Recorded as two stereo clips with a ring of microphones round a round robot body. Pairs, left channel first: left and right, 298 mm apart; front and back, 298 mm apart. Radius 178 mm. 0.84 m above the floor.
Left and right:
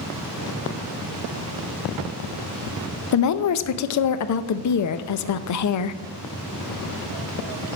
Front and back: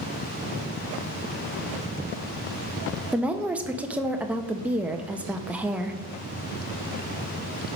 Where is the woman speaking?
95° left, 0.7 m.